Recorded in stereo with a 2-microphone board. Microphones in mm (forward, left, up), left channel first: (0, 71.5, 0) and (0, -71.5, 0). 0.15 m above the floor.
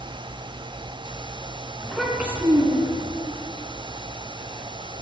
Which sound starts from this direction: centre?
A child speaking, at 1.8 s.